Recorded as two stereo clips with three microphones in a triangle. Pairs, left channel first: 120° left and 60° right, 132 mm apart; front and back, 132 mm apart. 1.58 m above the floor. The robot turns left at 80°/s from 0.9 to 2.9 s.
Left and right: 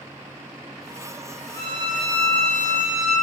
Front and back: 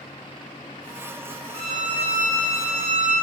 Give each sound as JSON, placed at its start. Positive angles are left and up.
{"t": 1.5, "sound": "a violin", "azimuth_deg": -80, "distance_m": 0.7}